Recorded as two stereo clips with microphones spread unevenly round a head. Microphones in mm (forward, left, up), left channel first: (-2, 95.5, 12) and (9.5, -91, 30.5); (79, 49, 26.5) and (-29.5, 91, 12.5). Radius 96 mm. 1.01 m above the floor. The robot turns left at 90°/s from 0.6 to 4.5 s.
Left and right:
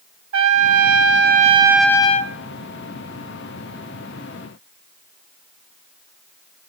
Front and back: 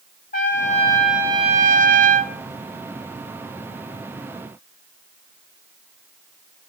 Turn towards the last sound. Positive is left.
turn(degrees=-60)